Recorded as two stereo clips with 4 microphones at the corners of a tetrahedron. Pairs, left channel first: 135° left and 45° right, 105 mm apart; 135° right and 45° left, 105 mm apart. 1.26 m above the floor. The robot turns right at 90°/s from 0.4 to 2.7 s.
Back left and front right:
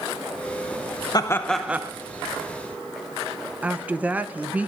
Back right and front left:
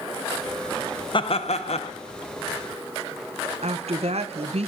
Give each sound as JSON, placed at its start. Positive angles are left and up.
{"t": 1.1, "sound": "laughter", "azimuth_deg": -175, "distance_m": 0.6}
{"t": 3.6, "sound": "a woman speaking", "azimuth_deg": 30, "distance_m": 0.6}